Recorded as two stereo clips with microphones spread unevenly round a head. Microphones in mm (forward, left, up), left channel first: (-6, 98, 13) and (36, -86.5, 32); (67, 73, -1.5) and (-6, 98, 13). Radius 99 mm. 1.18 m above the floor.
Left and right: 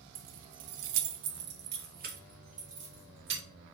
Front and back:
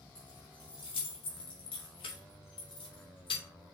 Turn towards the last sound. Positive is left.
turn(degrees=-20)